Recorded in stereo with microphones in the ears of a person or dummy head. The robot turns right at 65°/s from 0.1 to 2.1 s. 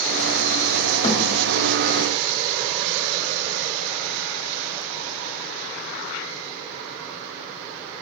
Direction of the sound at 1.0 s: 40° left (ahead or behind).